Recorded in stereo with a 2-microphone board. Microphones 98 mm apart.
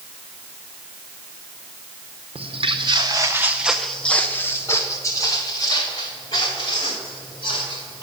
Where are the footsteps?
70° right (ahead or behind), 1.1 m; by 8.0 s 50° left (ahead or behind), 4 m.